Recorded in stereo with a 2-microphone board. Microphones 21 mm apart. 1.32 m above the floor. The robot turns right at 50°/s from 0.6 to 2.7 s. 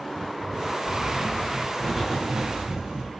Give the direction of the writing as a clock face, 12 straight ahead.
8 o'clock.